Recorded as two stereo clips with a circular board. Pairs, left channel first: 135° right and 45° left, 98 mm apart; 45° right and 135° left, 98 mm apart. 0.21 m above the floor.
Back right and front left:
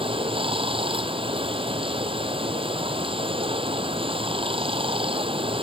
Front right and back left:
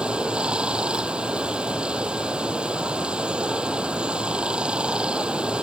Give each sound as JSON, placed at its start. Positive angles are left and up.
{"t": 0.0, "sound": "running water", "azimuth_deg": 55}